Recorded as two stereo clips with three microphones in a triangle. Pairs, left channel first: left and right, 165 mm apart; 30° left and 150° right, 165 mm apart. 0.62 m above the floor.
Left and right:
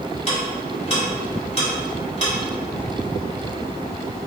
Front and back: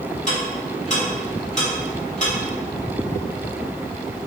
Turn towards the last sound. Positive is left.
turn(degrees=50)